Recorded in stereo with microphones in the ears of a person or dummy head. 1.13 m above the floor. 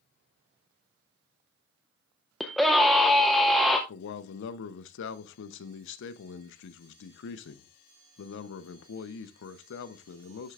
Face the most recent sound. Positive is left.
turn(degrees=70)  # may be behind; listen again after turning